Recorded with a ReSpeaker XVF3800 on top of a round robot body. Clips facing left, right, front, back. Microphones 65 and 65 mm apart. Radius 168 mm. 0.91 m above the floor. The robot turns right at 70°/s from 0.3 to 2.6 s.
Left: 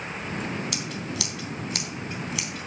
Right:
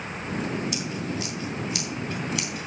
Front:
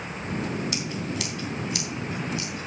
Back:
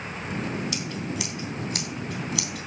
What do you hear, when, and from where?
0.7 s scissors: 65° left, 2 m; by 2.7 s 165° right, 2 m